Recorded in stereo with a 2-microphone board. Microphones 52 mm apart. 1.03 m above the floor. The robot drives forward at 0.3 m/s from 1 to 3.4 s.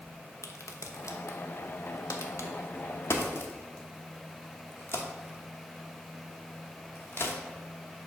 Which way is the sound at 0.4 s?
70° left (ahead or behind).